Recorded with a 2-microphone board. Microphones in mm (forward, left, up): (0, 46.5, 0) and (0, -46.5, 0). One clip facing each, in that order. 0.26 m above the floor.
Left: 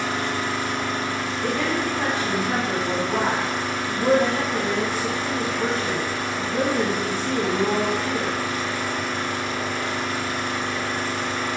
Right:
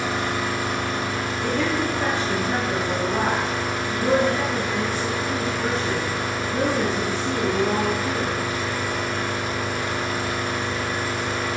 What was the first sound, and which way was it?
An engine running, 45° right (ahead or behind).